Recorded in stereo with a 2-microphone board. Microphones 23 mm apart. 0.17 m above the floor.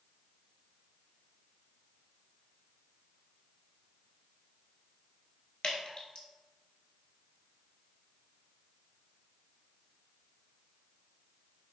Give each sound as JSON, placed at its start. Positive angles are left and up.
{"t": 5.6, "sound": "dripping", "side_deg": 50, "distance_m": 0.7}